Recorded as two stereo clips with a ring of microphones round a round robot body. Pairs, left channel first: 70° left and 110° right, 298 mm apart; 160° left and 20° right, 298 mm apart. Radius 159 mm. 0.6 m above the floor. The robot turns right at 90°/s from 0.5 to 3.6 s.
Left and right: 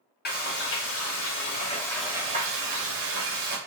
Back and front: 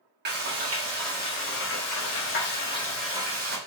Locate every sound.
0.2 s frying: 20° left, 1.5 m; by 3.6 s 65° right, 1.5 m